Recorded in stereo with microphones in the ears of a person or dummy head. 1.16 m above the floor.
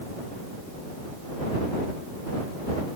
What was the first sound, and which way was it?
Only background noise.